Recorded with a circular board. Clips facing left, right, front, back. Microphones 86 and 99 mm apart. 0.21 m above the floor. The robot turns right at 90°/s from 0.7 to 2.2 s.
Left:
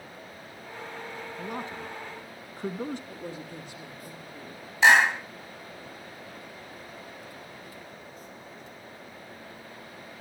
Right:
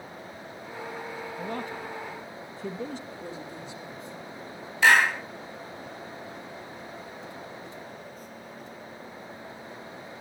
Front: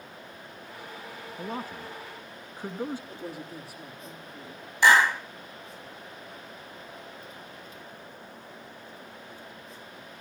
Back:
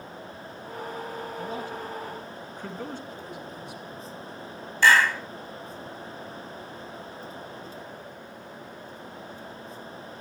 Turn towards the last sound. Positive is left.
turn(degrees=50)